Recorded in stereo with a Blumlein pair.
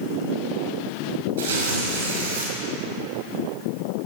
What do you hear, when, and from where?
1.4 s tearing paper: 65° right, 5 m